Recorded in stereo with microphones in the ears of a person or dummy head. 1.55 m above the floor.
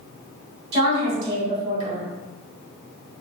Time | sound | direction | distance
0.7 | a woman speaking | 30° right (ahead or behind) | 1.9 m